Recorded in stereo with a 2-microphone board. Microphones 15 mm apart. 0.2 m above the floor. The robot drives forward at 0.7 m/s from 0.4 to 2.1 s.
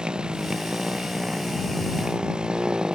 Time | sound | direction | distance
0.0 | a motorcycle | 70° right (ahead or behind) | ?